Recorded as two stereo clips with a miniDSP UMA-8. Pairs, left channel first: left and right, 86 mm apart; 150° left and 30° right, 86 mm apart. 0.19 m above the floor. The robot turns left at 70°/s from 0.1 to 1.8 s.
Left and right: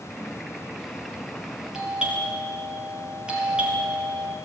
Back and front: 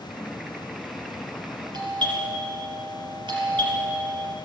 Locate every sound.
1.7 s a doorbell: 5° right, 5 m; by 4.3 s 10° right, 5 m